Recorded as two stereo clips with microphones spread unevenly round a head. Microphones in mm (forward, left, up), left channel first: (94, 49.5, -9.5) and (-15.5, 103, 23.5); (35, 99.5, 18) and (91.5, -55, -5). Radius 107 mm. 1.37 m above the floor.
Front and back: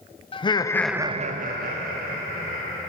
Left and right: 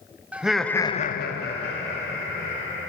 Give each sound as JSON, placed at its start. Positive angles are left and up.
{"t": 0.3, "sound": "laughter", "azimuth_deg": 10, "distance_m": 1.2}